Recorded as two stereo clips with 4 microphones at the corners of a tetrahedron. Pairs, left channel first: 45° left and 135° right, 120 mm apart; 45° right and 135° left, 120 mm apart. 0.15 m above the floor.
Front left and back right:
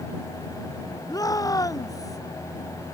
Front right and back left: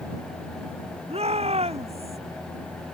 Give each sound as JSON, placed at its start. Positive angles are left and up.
{"t": 1.1, "sound": "a shout", "azimuth_deg": 105}